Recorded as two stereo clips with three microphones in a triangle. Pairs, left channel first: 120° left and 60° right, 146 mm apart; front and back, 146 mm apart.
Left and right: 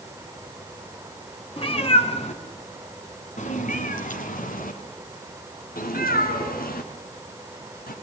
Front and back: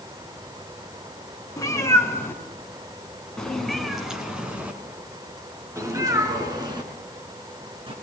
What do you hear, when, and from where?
1.6 s a cat meowing: 65° left, 3 m; by 7.9 s 125° left, 3.5 m